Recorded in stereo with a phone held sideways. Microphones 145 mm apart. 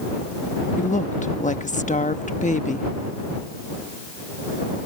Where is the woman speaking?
60° left (ahead or behind).